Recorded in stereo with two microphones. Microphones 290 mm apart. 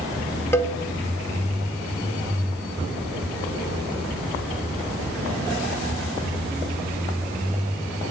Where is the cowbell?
10° left (ahead or behind), 0.5 m.